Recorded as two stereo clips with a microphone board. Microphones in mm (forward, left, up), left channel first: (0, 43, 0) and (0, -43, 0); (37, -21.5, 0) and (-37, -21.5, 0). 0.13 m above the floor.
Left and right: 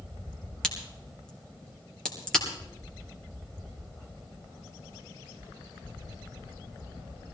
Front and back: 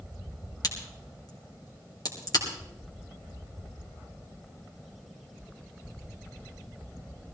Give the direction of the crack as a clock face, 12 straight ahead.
12 o'clock.